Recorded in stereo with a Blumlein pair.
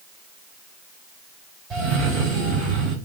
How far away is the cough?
About 2 m.